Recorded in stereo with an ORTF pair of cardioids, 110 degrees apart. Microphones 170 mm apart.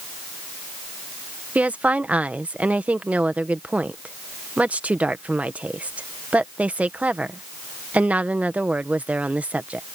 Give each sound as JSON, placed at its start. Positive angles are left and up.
{"t": 1.6, "sound": "a woman speaking", "azimuth_deg": -10}